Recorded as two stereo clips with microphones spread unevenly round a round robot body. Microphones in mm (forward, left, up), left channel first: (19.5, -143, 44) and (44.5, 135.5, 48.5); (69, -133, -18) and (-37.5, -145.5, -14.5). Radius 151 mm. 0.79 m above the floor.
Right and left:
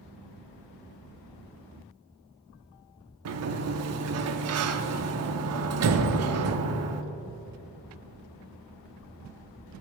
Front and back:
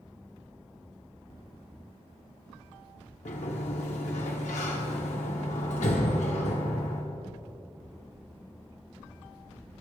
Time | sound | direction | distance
3.2 | a sliding door | 50° left | 1.0 m